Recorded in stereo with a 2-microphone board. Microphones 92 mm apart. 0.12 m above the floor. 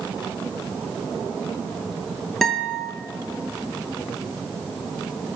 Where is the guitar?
5° left (ahead or behind), 0.6 m.